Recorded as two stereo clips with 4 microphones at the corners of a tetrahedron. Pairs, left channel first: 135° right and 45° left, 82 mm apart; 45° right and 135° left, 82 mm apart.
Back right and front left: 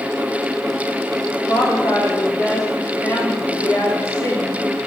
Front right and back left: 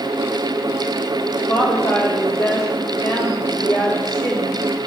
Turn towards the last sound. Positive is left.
turn(degrees=-90)